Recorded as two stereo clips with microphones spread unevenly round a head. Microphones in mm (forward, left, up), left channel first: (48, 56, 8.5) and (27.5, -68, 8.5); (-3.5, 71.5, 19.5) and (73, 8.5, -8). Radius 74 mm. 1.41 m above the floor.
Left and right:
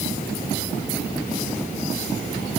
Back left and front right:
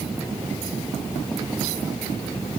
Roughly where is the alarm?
No alarm in this recording.